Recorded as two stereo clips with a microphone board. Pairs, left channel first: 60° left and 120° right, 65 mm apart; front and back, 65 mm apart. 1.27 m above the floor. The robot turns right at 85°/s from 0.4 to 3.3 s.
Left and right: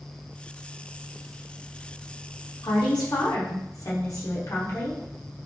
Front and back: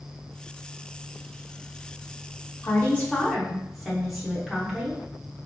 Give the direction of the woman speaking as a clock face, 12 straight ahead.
11 o'clock.